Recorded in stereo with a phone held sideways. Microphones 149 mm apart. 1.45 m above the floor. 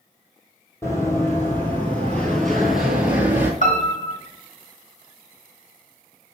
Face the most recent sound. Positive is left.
turn(degrees=50)  # may be behind; listen again after turning